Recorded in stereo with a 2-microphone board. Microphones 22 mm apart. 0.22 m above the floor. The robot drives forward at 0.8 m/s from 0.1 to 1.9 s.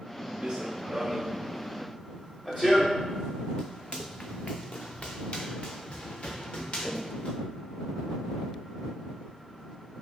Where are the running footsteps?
55° right (ahead or behind), 1.0 m; by 7.3 s 75° left (ahead or behind), 2 m.